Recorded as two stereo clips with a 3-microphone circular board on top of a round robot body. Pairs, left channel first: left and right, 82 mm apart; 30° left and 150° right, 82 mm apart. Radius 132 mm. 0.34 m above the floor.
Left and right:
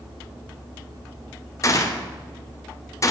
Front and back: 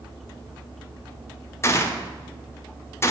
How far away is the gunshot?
About 1.9 m.